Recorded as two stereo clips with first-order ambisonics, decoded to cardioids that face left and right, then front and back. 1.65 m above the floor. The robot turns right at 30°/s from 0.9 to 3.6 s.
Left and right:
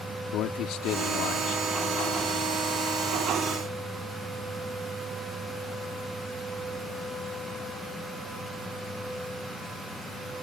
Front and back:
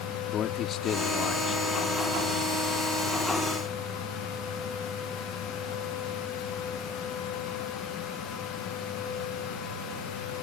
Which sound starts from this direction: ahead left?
A man speaking, at 0.3 s.